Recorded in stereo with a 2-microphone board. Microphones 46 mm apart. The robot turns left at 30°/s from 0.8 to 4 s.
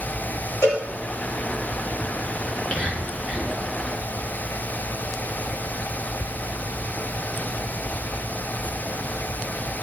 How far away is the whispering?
About 6 m.